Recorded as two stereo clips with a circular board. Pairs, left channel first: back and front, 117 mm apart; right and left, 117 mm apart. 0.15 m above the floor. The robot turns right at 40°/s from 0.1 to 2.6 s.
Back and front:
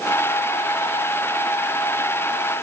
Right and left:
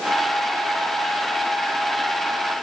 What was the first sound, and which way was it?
Only background noise.